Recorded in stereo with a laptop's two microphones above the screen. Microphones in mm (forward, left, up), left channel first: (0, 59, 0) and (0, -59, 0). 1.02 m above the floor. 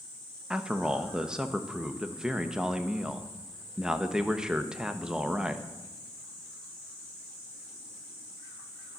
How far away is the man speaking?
About 0.8 m.